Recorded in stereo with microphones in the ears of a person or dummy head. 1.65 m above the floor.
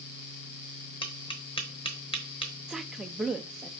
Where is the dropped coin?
No dropped coin in this recording.